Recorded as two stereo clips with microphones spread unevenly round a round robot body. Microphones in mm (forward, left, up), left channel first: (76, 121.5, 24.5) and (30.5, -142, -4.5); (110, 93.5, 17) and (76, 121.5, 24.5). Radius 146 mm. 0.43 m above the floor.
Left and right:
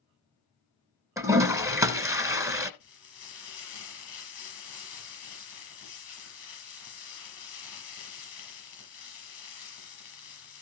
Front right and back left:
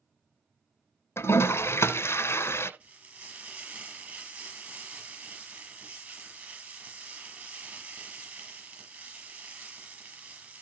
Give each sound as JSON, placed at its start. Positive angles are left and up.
{"t": 1.2, "sound": "a toilet flushing", "azimuth_deg": -20, "distance_m": 1.0}
{"t": 2.8, "sound": "frying", "azimuth_deg": 95, "distance_m": 6.5}